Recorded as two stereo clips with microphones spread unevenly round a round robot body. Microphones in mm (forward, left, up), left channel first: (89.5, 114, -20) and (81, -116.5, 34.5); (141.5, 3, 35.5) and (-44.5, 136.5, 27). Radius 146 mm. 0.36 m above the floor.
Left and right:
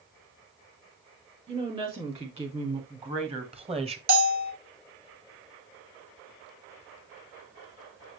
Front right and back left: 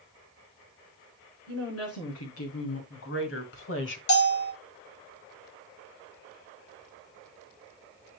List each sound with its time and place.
1.5 s a woman speaking: 25° right, 5 m; by 4.0 s 20° right, 1.5 m
4.1 s a bell: 45° right, 1.6 m